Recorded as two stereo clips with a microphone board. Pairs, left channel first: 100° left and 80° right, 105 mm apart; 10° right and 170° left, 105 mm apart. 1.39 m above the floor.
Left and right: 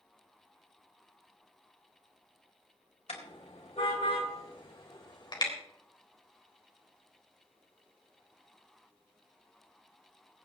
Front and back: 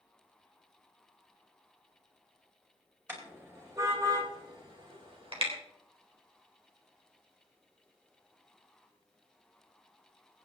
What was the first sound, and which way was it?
A car horn, 100° left.